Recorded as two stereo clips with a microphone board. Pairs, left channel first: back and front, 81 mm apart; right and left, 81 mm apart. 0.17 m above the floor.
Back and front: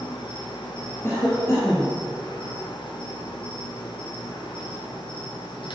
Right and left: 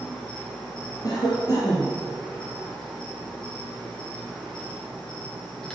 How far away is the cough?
About 2.5 m.